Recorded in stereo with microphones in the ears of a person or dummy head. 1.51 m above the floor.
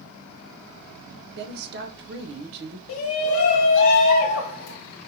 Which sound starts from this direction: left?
A shout, at 2.9 s.